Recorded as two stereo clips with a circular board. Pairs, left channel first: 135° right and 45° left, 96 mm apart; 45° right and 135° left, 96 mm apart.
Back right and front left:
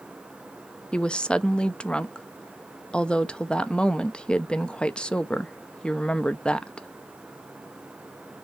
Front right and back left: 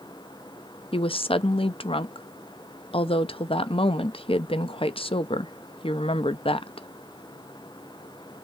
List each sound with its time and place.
0.9 s a woman speaking: 55° right, 0.7 m